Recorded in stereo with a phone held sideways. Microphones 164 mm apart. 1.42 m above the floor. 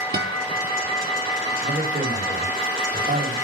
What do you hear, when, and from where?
0.1 s a guitar: 70° right (ahead or behind), 1.8 m
1.6 s a man speaking: 60° right (ahead or behind), 4 m